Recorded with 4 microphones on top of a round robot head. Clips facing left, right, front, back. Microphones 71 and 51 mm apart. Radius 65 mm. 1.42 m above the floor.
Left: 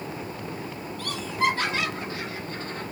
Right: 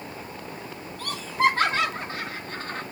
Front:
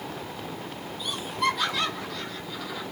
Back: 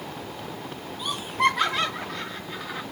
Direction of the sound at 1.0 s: 145° right.